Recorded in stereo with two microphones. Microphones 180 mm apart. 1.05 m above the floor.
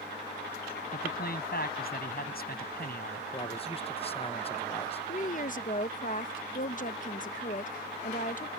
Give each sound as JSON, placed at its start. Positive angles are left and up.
{"t": 0.9, "sound": "a man speaking", "side_deg": 55}
{"t": 3.3, "sound": "a man speaking", "side_deg": 30}
{"t": 5.1, "sound": "a woman speaking", "side_deg": 45}